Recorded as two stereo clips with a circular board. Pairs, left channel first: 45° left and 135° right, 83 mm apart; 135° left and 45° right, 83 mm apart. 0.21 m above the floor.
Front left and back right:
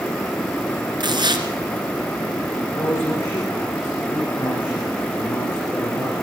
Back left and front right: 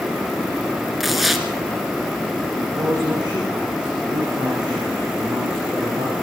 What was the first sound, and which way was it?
Tearing paper, 135° right.